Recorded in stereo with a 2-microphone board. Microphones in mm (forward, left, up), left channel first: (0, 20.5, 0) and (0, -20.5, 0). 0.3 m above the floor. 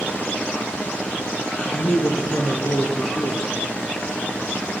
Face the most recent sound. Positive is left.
turn(degrees=70)  # may be behind; listen again after turning